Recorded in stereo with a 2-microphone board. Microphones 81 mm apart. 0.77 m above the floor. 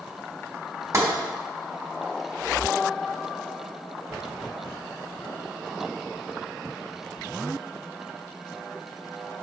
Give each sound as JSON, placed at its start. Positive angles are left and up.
{"t": 0.9, "sound": "tapping", "side_deg": -40, "distance_m": 2.5}